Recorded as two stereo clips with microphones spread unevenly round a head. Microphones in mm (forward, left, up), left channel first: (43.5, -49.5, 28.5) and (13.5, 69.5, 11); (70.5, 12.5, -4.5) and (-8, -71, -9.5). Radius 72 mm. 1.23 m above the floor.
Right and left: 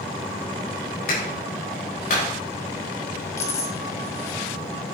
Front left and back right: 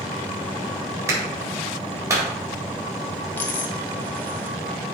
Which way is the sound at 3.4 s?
20° right.